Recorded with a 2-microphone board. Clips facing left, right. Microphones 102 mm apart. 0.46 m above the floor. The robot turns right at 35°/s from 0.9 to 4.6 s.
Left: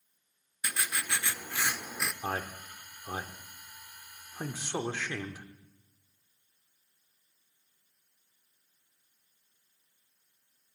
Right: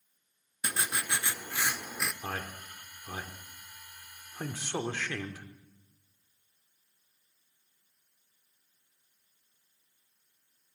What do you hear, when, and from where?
0.6 s writing: 45° right, 0.5 m; by 2.1 s straight ahead, 0.5 m
2.2 s a man speaking: 35° left (ahead or behind), 0.9 m; by 5.5 s 10° left (ahead or behind), 0.9 m